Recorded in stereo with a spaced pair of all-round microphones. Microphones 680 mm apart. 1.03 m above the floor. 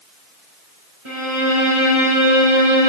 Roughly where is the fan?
I don't hear a fan.